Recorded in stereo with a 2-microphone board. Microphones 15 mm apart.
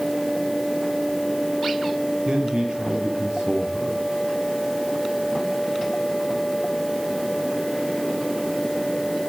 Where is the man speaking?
75° right (ahead or behind), 6 m.